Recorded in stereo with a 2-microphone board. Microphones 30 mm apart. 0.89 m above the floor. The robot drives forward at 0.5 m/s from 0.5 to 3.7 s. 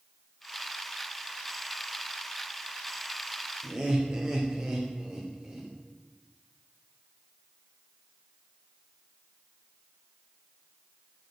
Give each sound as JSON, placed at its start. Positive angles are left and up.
{"t": 3.6, "sound": "laughter", "side_deg": -40, "distance_m": 2.5}